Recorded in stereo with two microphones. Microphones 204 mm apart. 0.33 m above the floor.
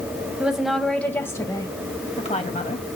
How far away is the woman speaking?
About 2.5 m.